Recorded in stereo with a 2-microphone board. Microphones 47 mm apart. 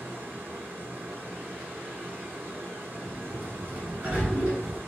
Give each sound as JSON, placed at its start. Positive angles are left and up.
{"t": 0.0, "sound": "running water", "side_deg": -60, "distance_m": 1.5}
{"t": 3.0, "sound": "a sliding door", "side_deg": -40, "distance_m": 2.0}